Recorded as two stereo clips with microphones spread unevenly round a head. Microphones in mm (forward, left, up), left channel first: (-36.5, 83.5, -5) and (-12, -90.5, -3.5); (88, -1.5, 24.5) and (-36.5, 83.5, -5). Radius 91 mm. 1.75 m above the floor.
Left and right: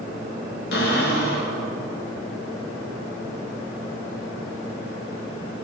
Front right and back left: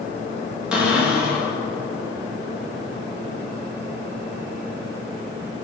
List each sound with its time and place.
0.7 s a cupboard door: 60° left, 2.5 m